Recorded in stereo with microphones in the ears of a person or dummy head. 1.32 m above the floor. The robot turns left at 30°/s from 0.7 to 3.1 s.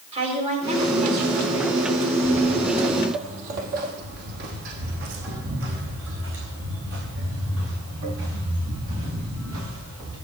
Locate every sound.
0.1 s a woman speaking: 35° right, 4 m; by 1.7 s 65° right, 4 m
2.2 s footsteps: 15° left (ahead or behind), 1.4 m; by 10.1 s 80° right, 9.5 m